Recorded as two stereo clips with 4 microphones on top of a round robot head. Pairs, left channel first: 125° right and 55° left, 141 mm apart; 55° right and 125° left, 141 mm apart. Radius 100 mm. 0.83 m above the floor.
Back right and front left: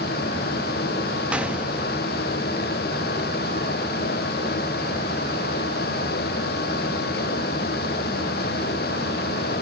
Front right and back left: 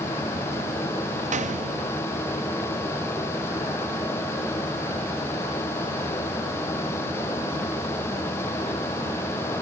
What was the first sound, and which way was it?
A gunshot, 135° left.